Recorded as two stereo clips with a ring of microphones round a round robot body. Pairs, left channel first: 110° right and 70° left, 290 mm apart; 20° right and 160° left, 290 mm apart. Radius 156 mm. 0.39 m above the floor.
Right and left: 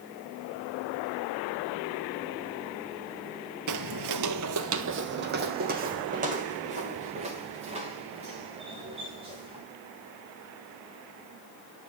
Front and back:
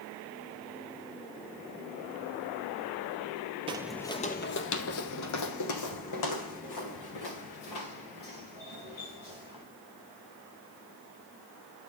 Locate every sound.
3.7 s footsteps: 85° left, 0.6 m; by 9.6 s 5° right, 4 m